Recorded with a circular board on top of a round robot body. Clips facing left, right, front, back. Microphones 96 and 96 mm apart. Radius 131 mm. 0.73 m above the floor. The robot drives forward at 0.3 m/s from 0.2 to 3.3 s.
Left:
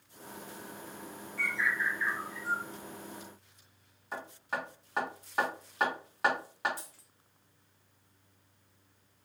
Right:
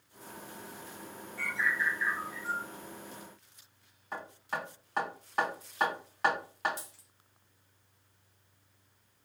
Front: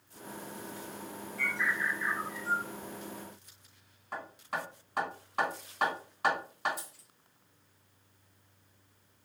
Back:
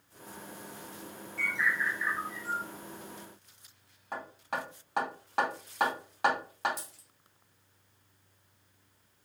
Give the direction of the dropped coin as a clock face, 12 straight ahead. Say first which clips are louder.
Right 1 dB, front 1 dB; 5 o'clock.